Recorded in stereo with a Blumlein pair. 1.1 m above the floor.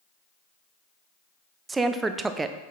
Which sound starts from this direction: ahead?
A woman speaking, at 1.7 s.